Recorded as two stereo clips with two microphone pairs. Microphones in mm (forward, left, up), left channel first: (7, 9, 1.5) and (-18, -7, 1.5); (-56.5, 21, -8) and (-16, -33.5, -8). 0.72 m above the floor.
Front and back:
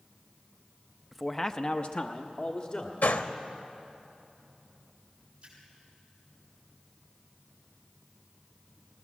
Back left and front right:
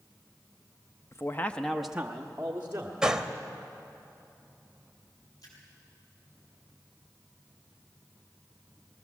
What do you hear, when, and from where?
1.1 s a man speaking: 125° left, 0.8 m; by 2.9 s 5° left, 1.7 m
3.0 s a gunshot: 30° left, 0.9 m
5.4 s a splash: 160° left, 7.5 m